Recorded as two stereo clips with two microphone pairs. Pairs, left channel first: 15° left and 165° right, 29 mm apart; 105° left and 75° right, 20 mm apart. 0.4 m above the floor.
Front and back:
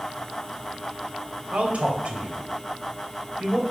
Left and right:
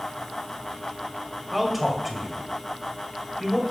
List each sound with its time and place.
1.5 s a man speaking: 155° right, 2 m